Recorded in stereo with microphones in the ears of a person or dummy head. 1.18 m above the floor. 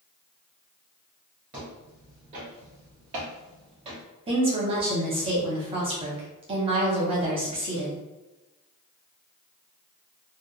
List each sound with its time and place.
1.5 s footsteps: 20° right (ahead or behind), 1.2 m; by 4.0 s 35° right (ahead or behind), 1.8 m
4.3 s a woman speaking: 30° right (ahead or behind), 0.8 m